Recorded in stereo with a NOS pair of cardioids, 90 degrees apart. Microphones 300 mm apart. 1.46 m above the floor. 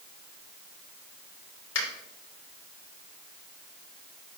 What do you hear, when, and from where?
1.8 s a finger snap: 60° left, 5 m